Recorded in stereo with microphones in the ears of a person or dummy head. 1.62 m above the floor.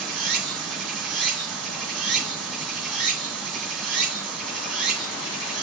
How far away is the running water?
About 3 m.